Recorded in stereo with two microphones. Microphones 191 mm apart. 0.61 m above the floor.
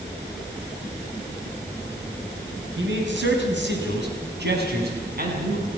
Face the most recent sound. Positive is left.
turn(degrees=-50)  # may be behind; listen again after turning